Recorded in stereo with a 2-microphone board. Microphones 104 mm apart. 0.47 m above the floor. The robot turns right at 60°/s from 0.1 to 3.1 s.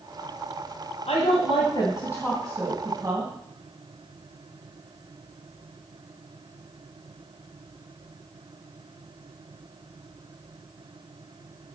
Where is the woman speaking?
90° left, 2.5 m; by 3.3 s 145° right, 2.5 m.